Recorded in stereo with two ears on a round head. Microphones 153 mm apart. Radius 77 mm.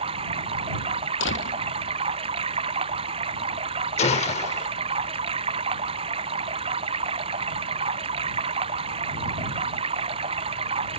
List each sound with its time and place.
0.0 s running water: 35° right (ahead or behind)
1.2 s a door slam: 85° left
4.0 s a gunshot: 40° left (ahead or behind)